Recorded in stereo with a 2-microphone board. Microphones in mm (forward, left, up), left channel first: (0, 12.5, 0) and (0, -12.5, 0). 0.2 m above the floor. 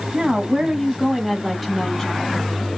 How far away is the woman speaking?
About 1.2 m.